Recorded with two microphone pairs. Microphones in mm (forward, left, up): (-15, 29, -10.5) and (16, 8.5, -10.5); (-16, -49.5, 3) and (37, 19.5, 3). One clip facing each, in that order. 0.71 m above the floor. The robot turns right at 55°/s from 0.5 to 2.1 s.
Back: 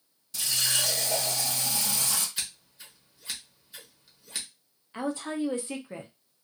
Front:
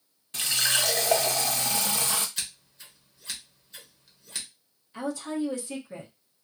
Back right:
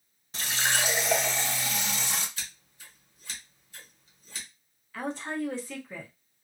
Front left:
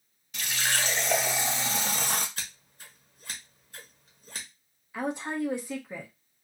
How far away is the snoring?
I don't hear snoring.